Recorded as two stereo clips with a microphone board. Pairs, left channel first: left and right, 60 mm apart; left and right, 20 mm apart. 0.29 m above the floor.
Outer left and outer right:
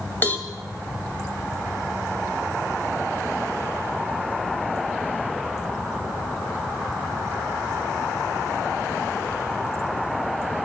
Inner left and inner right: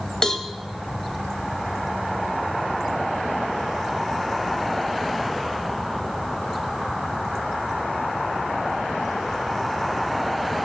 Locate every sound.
0.2 s a cowbell: 35° left (ahead or behind), 1.3 m